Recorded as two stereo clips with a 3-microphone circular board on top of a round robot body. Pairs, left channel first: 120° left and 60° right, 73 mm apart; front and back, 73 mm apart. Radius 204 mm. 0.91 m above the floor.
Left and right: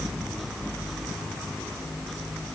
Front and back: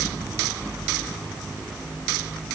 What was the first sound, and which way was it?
Only background noise.